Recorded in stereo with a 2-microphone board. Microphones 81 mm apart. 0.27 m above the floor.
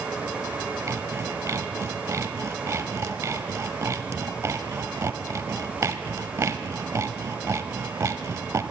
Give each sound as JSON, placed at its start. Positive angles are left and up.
{"t": 0.9, "sound": "sawing", "side_deg": -40, "distance_m": 0.8}